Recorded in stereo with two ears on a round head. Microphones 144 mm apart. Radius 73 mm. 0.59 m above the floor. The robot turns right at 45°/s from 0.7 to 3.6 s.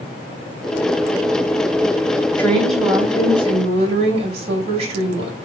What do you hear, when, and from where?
2.4 s a woman speaking: 165° left, 3.5 m; by 5.3 s 140° right, 3.5 m